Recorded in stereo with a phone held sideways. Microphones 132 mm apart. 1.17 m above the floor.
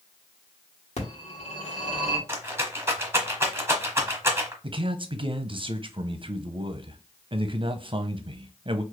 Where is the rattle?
20° right (ahead or behind), 1.1 m.